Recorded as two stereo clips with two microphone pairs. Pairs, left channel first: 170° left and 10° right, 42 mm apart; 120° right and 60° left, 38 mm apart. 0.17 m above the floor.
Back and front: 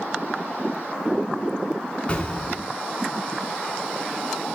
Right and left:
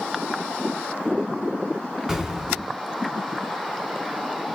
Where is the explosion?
130° left, 1.8 m.